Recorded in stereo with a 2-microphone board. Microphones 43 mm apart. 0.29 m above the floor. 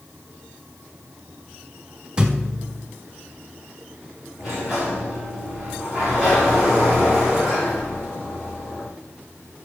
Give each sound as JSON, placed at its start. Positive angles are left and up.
{"t": 2.2, "sound": "a thud", "side_deg": -20, "distance_m": 0.9}
{"t": 4.4, "sound": "a sliding door", "side_deg": -10, "distance_m": 4.0}